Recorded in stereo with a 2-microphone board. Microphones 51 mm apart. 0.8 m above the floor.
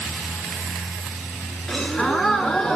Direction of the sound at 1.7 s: 10° left (ahead or behind).